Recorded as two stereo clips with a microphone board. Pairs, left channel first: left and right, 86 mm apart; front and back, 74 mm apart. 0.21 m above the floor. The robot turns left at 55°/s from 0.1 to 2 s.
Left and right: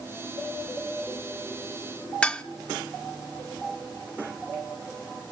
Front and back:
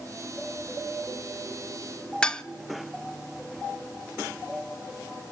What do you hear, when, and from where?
2.2 s dishes clattering: 45° left, 0.6 m